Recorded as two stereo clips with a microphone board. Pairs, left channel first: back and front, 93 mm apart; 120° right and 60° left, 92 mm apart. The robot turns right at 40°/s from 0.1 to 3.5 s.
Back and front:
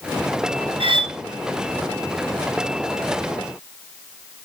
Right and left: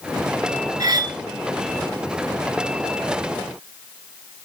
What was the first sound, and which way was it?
Cutlery clinking, 15° left.